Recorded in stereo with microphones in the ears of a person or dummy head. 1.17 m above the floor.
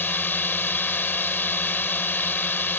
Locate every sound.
0.0 s a drone: 10° left (ahead or behind)